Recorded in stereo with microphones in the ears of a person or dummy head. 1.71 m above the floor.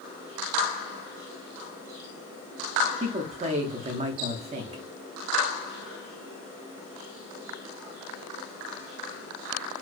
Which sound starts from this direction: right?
A man speaking, at 3.0 s.